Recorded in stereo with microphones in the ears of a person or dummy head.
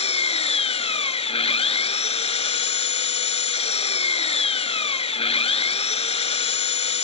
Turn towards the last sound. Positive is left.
turn(degrees=30)  # may be behind; listen again after turning